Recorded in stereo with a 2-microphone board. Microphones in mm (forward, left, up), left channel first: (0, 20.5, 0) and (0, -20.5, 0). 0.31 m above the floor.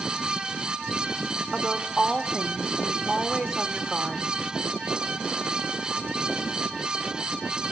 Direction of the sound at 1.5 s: 10° right (ahead or behind).